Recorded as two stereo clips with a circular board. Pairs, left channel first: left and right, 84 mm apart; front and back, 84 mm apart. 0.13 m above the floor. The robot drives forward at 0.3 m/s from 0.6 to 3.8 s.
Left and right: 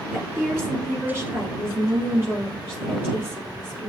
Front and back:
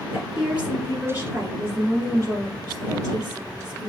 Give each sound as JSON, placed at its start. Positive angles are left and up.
{"t": 0.1, "sound": "a woman speaking", "azimuth_deg": -120, "distance_m": 1.3}